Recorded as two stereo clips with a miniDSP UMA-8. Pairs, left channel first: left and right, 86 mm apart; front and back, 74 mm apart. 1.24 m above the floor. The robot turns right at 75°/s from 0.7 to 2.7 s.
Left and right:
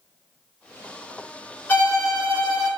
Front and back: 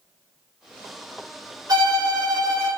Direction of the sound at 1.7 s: 155° left.